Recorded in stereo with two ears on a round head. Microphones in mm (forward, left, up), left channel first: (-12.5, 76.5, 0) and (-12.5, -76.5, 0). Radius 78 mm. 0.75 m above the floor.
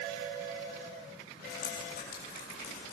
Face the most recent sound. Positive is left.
turn(degrees=55)  # may be behind; listen again after turning